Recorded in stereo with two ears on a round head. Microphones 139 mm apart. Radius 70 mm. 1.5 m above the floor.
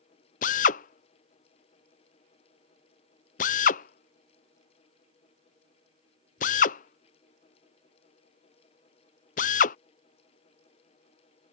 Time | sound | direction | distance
0.4 | a drill | 50° left (ahead or behind) | ?